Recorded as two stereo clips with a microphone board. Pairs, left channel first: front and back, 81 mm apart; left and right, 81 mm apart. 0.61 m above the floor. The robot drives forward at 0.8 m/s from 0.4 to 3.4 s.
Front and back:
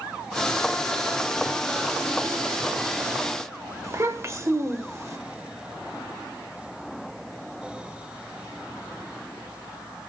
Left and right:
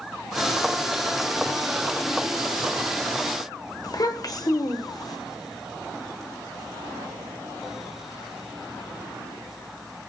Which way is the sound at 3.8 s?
125° left.